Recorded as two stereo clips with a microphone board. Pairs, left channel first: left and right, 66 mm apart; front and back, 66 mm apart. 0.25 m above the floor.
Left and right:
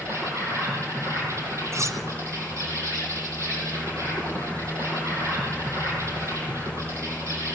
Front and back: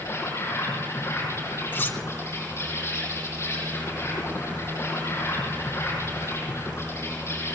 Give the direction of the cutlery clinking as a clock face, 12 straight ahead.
2 o'clock.